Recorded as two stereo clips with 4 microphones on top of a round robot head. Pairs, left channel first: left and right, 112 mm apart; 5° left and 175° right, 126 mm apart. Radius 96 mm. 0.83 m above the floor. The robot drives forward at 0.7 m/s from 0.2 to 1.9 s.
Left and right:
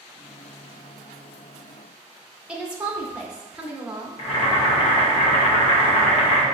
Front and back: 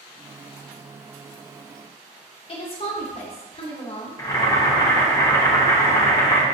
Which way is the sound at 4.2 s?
65° left.